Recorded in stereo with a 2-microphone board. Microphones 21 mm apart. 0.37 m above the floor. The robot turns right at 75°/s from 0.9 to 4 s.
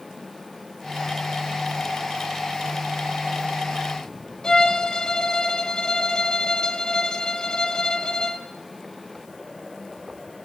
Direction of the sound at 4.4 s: 30° left (ahead or behind).